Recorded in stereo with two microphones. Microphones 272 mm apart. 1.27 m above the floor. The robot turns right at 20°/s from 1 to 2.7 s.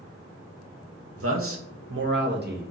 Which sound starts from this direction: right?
A man speaking, at 1.2 s.